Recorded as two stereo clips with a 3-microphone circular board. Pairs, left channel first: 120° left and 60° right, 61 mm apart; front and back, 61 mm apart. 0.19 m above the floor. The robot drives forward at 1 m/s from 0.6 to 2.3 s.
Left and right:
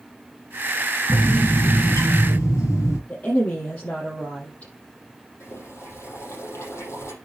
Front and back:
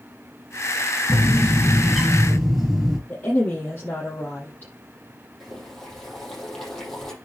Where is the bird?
80° left, 5 m; by 3.0 s 95° left, 4.5 m.